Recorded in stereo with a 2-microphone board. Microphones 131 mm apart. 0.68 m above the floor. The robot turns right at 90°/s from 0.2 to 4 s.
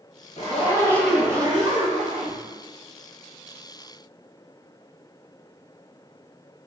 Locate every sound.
0.4 s a zipper: 115° left, 0.9 m; by 2.4 s 60° right, 0.9 m